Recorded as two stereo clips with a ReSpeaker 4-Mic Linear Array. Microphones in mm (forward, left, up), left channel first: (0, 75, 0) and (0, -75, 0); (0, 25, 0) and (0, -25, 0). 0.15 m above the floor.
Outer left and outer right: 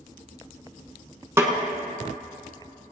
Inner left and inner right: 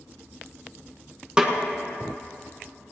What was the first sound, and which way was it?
A snare drum, 20° right (ahead or behind).